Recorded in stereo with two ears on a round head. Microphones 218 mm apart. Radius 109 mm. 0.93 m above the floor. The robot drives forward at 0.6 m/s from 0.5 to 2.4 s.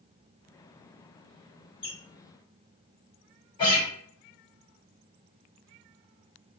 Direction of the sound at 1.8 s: 20° left (ahead or behind).